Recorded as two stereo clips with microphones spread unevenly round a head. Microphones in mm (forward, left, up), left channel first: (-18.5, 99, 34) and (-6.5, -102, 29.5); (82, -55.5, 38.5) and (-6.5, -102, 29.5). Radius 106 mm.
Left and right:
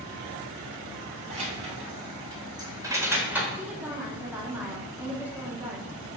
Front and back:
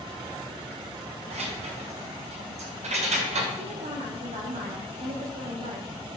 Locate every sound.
1.3 s keys jangling: 145° right, 3.5 m; by 3.5 s 170° right, 2.5 m
3.5 s a woman speaking: 170° right, 2.5 m